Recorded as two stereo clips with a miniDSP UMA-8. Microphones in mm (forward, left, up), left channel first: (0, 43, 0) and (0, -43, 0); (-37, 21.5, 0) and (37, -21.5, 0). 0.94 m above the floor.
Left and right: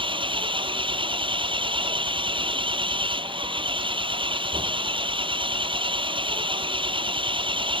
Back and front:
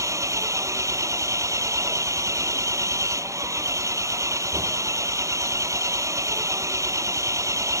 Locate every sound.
0.0 s an engine running: 85° right